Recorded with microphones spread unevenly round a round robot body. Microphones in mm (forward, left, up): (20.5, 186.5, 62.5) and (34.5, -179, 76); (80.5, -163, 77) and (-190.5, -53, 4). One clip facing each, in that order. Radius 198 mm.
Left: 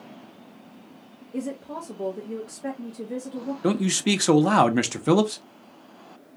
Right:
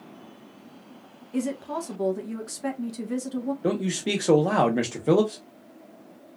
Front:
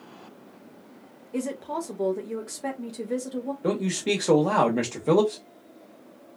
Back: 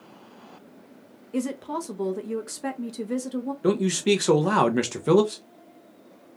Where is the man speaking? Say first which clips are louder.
Left 6 dB, back 5 dB; 135° left, 0.6 m.